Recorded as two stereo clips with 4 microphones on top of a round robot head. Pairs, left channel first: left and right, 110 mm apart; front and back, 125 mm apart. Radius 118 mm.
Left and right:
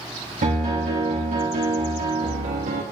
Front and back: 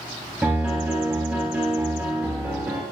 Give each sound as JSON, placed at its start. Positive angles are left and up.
{"t": 0.4, "sound": "a piano", "azimuth_deg": -95, "distance_m": 2.5}